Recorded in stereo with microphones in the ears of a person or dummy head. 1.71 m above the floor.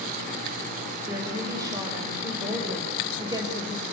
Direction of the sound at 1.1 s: 20° right (ahead or behind).